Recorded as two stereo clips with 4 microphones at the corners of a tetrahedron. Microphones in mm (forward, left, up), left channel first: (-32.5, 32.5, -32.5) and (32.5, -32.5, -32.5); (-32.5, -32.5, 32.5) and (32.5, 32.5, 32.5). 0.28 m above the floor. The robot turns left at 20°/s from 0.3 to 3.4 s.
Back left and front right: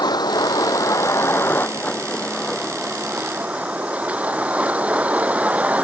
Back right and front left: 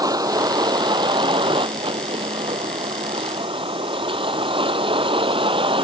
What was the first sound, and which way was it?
A vehicle, 90° left.